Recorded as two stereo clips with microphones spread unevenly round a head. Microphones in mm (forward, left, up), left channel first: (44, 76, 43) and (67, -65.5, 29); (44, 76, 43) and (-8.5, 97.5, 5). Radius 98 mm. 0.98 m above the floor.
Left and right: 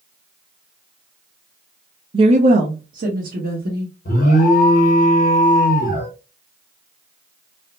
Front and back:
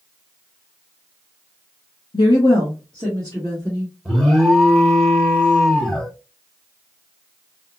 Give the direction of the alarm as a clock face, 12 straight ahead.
10 o'clock.